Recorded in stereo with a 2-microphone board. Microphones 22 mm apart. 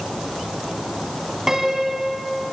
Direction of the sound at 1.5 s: 15° right (ahead or behind).